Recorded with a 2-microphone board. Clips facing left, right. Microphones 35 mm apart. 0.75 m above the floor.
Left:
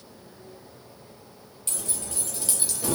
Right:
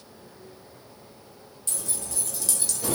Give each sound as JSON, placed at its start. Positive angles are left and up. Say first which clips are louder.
{"t": 1.7, "sound": "keys jangling", "louder": "left 1 dB", "side_deg": 50, "distance_m": 1.2}